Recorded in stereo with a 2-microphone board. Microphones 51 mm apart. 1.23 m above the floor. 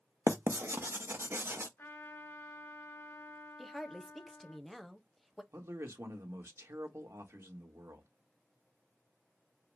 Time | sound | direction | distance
0.3 | writing | 55° right (ahead or behind) | 0.8 m
1.8 | a trumpet | 45° left (ahead or behind) | 2.5 m
3.6 | a woman speaking | centre (ahead or behind) | 0.7 m
5.5 | a man speaking | 80° right | 1.6 m